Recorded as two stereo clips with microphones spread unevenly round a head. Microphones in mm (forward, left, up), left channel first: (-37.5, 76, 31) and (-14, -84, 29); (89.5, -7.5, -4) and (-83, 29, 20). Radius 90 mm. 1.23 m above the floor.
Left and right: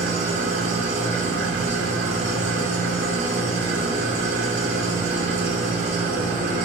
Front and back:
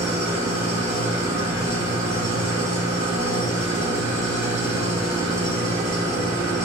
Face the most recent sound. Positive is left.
turn(degrees=-125)